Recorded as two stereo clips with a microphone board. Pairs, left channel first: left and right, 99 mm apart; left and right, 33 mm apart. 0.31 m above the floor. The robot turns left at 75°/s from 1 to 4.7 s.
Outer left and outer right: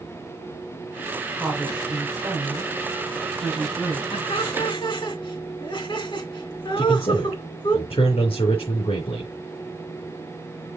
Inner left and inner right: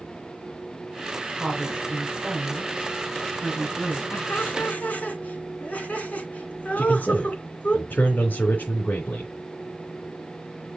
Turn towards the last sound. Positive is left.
turn(degrees=70)  # may be behind; listen again after turning